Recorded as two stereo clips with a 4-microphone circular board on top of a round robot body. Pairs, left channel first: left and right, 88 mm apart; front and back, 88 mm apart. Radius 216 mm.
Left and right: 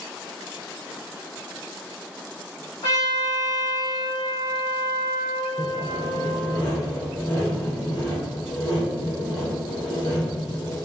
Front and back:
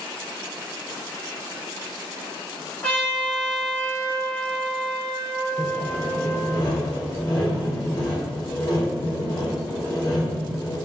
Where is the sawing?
55° left, 1.6 m.